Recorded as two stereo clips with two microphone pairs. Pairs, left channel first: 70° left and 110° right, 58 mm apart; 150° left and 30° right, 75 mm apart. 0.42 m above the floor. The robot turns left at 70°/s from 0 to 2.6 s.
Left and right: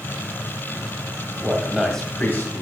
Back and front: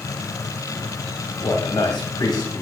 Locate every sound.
1.4 s a man speaking: 170° right, 2 m; by 2.6 s 105° left, 2 m